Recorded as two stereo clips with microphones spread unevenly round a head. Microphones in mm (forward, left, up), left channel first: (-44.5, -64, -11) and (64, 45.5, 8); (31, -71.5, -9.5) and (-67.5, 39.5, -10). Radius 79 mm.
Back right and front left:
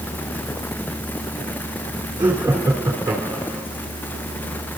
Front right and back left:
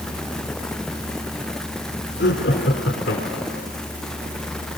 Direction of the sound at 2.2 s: 35° right.